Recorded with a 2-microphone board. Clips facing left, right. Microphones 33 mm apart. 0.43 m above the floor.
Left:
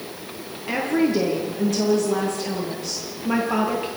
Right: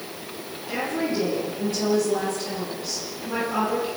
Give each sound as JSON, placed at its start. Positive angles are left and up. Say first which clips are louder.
{"t": 0.7, "sound": "a woman speaking", "louder": "left 6 dB", "side_deg": 85, "distance_m": 9.0}